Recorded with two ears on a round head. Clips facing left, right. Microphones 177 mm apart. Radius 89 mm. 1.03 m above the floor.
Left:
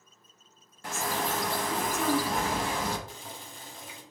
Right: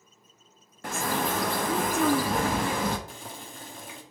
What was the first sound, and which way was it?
A bird, 45° right (ahead or behind).